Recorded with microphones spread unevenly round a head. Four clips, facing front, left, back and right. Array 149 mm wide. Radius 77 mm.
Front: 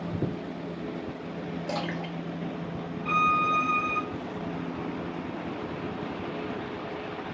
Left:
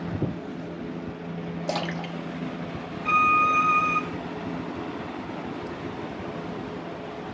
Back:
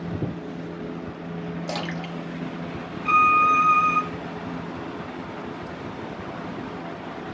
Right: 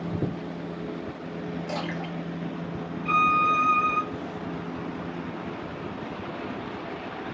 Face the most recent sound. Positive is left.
turn(degrees=120)